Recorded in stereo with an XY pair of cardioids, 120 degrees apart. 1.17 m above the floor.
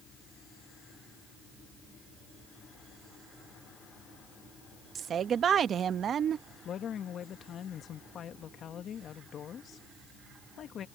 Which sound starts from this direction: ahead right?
A woman speaking, at 5.0 s.